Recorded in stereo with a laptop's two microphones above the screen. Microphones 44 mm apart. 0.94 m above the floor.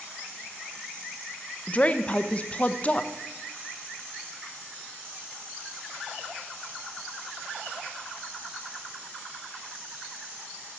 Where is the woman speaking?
30° left (ahead or behind), 0.6 m.